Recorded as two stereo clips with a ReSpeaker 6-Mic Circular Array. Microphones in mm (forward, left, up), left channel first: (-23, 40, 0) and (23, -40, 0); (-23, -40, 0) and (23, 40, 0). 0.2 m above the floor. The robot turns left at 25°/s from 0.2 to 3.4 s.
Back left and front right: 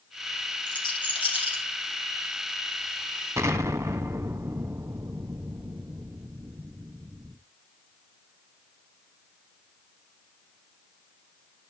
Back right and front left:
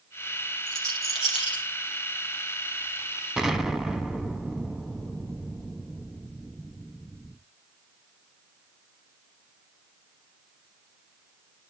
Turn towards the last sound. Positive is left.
turn(degrees=-25)